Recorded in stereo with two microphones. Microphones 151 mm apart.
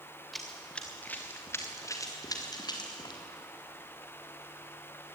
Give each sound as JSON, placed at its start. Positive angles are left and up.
{"t": 0.3, "sound": "running footsteps", "side_deg": 0, "distance_m": 3.5}